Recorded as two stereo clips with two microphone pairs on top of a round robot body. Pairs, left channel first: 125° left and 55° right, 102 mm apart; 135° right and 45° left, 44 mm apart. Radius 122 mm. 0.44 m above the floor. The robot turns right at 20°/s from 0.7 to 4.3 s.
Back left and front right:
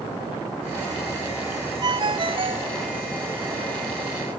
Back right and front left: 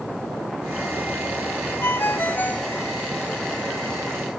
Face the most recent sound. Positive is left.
turn(degrees=-50)